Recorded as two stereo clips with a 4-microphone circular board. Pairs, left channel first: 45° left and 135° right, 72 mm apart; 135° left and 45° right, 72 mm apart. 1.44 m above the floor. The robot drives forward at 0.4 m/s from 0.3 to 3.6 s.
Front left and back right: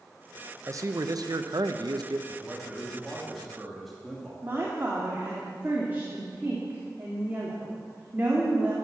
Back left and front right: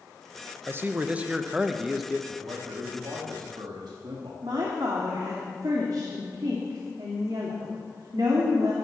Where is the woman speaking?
70° right, 3 m.